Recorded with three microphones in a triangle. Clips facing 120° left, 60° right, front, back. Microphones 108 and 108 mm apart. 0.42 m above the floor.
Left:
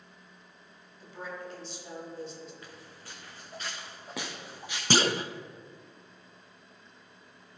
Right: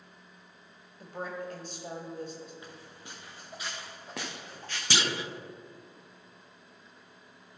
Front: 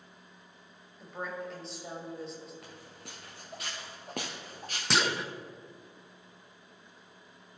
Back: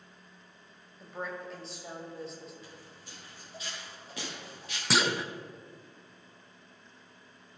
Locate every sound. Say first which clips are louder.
1.0 s a woman speaking: right 3 dB, front 1 dB; 90° right, 2.5 m
2.6 s footsteps: right 1 dB, front 2 dB; 10° left, 2.5 m; by 4.8 s 45° left, 2 m
4.9 s a clunk: left 6 dB, back 1 dB; 90° left, 0.5 m